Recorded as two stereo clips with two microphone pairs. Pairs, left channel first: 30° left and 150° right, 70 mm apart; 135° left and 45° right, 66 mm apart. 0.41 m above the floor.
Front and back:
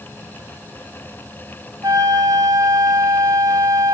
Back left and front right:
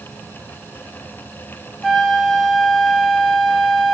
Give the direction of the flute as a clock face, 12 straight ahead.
5 o'clock.